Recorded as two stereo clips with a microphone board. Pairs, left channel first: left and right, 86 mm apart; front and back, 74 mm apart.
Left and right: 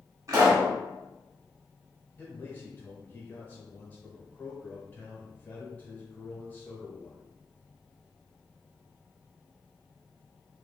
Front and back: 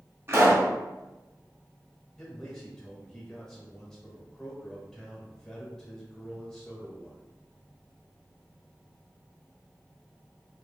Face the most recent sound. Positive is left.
turn(degrees=70)